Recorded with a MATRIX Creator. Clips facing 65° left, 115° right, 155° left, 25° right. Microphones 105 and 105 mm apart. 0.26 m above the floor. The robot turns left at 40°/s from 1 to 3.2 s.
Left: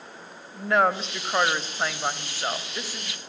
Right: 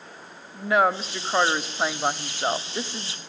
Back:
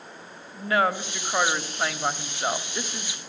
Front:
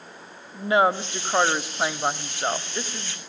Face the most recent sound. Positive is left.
turn(degrees=-120)